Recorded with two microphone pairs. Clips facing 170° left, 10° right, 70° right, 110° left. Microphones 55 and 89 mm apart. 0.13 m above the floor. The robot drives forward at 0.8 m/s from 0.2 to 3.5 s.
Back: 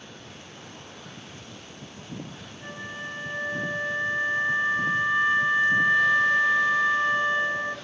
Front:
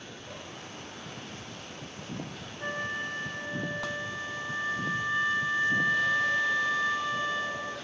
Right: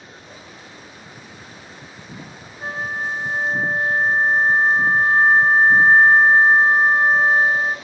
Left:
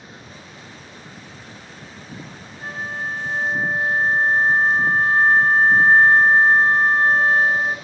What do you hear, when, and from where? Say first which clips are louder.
2.6 s a flute: front 4 dB, right 3 dB; 40° right, 0.6 m; by 7.8 s 150° right, 0.6 m